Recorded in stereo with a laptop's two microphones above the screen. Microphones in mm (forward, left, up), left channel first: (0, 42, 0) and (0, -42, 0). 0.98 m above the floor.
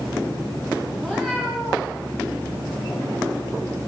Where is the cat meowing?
5° left (ahead or behind), 9.5 m.